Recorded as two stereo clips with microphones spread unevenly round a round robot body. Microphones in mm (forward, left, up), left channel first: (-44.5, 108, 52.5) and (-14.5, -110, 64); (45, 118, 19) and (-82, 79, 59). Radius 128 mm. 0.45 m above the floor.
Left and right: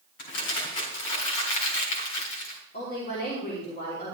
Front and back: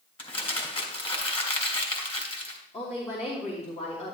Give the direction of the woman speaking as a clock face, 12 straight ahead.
11 o'clock.